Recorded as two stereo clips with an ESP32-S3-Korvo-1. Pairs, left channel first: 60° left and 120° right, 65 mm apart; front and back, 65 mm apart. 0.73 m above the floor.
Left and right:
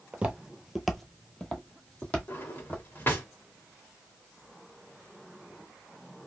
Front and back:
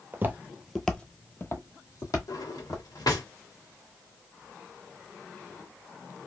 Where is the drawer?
5° left, 1.0 m.